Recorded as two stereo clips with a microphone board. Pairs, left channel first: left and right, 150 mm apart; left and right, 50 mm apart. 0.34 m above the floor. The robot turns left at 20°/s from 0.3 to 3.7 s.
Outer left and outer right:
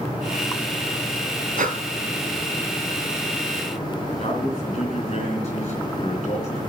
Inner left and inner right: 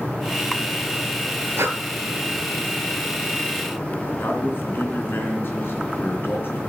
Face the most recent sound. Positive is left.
turn(degrees=55)  # may be behind; listen again after turning